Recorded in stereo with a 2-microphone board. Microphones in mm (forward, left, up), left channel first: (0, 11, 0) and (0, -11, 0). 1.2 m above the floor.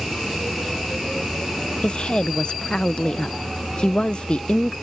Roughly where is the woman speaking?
Left.